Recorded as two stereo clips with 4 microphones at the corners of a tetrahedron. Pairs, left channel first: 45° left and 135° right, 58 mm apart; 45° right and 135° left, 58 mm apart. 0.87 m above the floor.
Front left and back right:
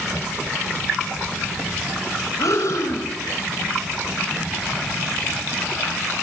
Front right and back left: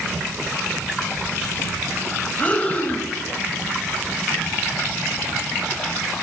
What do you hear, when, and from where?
2.4 s breathing: 20° left, 2 m